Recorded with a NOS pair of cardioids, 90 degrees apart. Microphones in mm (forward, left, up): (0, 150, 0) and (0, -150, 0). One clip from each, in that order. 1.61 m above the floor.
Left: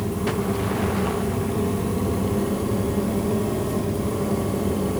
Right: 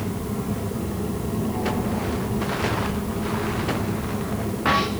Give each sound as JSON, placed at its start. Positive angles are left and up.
{"t": 0.0, "sound": "a fan", "azimuth_deg": 60, "distance_m": 5.5}